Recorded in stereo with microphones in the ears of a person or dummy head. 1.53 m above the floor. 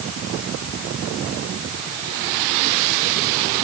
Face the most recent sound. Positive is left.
No sound to turn to.